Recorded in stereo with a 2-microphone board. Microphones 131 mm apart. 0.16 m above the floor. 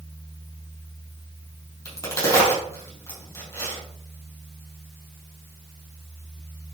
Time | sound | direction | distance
1.9 | a crack | 20° left (ahead or behind) | 4.5 m